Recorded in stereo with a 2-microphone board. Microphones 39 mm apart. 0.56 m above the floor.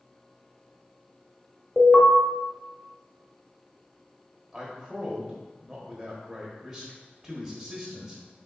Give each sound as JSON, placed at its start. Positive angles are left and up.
{"t": 1.8, "sound": "an alarm", "side_deg": 20, "distance_m": 1.0}
{"t": 4.5, "sound": "a man speaking", "side_deg": -5, "distance_m": 1.1}